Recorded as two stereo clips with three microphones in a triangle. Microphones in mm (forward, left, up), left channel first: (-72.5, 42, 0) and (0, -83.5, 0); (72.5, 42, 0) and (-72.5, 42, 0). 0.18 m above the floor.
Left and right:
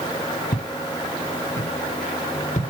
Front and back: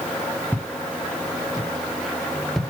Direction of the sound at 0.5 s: 100° left.